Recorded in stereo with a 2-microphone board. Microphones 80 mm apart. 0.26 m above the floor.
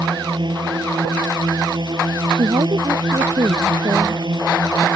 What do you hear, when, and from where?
0.0 s a drone: 65° right (ahead or behind)
2.3 s a woman speaking: 75° right (ahead or behind)